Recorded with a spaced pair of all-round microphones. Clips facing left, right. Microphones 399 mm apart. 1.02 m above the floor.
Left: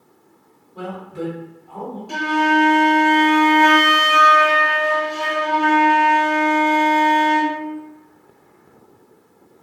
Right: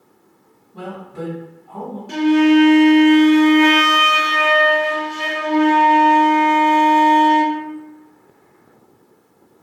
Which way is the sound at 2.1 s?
35° right (ahead or behind).